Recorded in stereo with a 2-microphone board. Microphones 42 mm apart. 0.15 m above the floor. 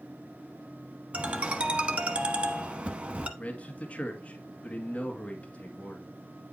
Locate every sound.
1.1 s a ringtone: 30° right (ahead or behind), 1.0 m
3.4 s a man speaking: 30° left (ahead or behind), 1.8 m